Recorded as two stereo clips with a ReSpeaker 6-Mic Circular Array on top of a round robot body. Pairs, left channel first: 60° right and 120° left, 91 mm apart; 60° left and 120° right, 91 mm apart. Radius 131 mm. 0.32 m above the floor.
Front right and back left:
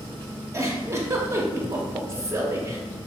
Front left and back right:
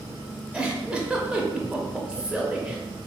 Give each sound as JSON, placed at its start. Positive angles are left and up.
{"t": 0.5, "sound": "a giggle", "azimuth_deg": 165, "distance_m": 0.7}